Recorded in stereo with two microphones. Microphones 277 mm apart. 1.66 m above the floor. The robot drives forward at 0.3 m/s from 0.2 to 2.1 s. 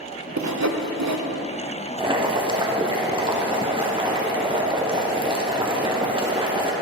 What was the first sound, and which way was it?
Sawing, 85° right.